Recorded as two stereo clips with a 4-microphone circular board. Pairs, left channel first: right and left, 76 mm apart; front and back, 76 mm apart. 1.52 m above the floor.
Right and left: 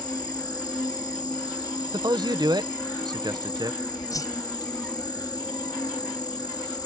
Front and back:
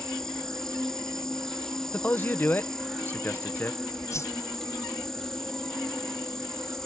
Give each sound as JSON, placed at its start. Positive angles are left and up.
{"t": 0.0, "sound": "an insect", "azimuth_deg": -85}
{"t": 1.9, "sound": "a man speaking", "azimuth_deg": 65}
{"t": 4.1, "sound": "a whoosh", "azimuth_deg": -50}